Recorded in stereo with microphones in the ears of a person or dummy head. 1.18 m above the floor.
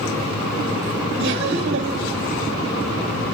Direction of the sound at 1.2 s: 50° right (ahead or behind).